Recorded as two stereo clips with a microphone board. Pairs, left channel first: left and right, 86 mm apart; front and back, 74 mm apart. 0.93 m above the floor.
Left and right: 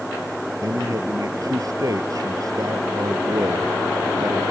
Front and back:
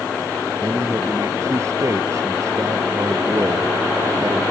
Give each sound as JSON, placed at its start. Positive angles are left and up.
{"t": 0.6, "sound": "a man speaking", "azimuth_deg": -135}